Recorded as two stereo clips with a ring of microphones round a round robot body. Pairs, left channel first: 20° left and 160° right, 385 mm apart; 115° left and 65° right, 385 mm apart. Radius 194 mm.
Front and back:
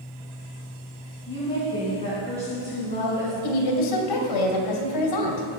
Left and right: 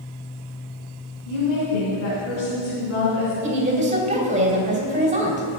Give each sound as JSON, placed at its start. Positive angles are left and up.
{"t": 1.3, "sound": "a woman speaking", "azimuth_deg": 100, "distance_m": 4.5}
{"t": 3.4, "sound": "a woman speaking", "azimuth_deg": 5, "distance_m": 3.0}